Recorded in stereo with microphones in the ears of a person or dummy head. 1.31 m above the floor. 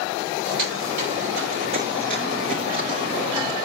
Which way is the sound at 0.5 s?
55° right (ahead or behind).